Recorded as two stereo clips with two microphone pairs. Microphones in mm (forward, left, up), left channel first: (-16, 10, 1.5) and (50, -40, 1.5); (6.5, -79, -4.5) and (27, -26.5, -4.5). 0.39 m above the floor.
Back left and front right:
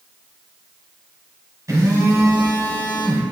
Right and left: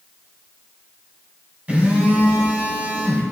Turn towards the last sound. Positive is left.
turn(degrees=5)